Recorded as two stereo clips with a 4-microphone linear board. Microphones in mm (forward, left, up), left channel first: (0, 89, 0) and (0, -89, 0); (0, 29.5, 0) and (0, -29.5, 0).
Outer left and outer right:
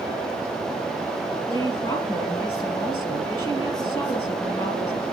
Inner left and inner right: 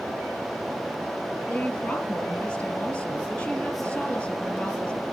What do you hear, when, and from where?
1.5 s a woman speaking: 25° left (ahead or behind), 3 m